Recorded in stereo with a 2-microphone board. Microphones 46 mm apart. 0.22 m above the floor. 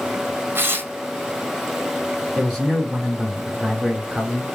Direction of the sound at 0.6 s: 50° right (ahead or behind).